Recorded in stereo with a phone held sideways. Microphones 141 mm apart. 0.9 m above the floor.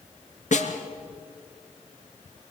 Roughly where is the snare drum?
Left.